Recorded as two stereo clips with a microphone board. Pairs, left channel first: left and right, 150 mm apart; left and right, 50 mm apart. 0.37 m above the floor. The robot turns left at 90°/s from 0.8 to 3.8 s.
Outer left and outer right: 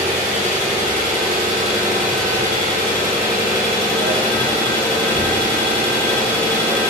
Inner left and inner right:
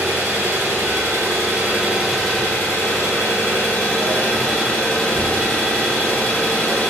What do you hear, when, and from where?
0.0 s an engine running: 55° right, 1.0 m; by 6.9 s 35° left, 1.0 m